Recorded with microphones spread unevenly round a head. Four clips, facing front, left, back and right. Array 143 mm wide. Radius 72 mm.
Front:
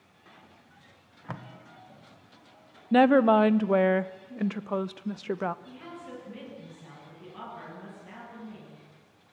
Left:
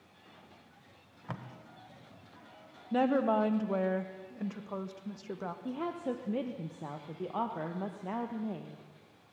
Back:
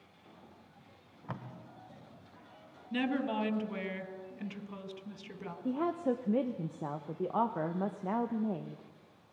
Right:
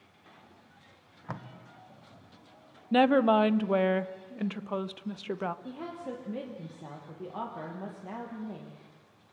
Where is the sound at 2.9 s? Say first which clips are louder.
Right 5 dB, front 14 dB; 20° right, 0.8 m.